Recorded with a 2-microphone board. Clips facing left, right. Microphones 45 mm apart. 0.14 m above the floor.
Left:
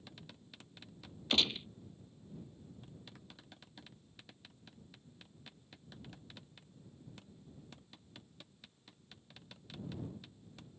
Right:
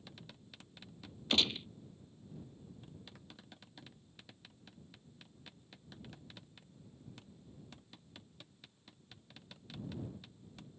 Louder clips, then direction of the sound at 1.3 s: Even; centre (ahead or behind).